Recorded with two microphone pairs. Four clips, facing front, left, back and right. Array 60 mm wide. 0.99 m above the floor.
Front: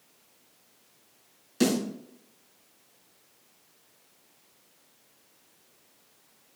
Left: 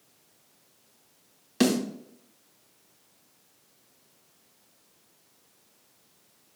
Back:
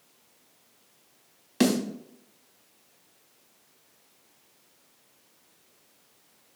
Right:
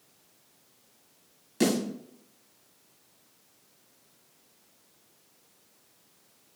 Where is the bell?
I don't hear a bell.